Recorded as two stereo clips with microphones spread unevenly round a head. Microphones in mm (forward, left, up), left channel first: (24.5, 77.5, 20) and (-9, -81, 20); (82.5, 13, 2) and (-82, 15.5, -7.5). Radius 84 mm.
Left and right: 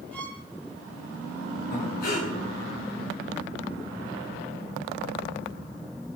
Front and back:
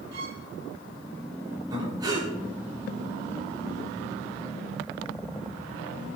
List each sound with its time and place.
0.1 s a violin: 160° left, 6 m
1.7 s breathing: 110° left, 8.5 m